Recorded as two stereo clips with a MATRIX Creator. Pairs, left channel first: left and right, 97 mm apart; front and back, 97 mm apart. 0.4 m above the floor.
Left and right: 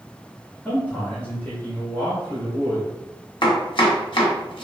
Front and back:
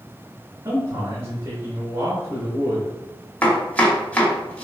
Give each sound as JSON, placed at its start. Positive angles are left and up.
{"t": 0.7, "sound": "a man speaking", "azimuth_deg": 150, "distance_m": 1.1}
{"t": 3.4, "sound": "chopping", "azimuth_deg": 70, "distance_m": 0.9}